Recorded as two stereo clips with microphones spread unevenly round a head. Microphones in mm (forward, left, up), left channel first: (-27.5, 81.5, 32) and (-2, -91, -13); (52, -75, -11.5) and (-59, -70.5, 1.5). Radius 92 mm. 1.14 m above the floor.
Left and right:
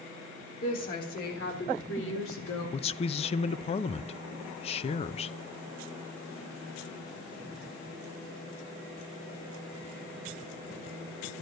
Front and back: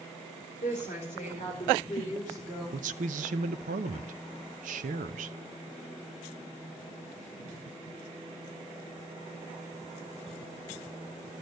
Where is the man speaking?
155° left, 0.6 m.